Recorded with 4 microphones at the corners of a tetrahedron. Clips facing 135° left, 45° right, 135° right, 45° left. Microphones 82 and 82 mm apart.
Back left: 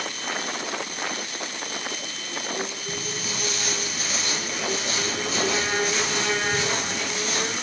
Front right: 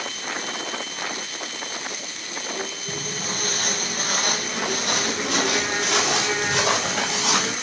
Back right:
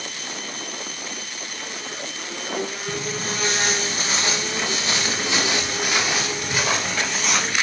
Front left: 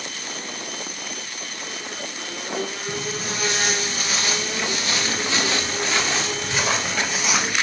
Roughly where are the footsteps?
Right.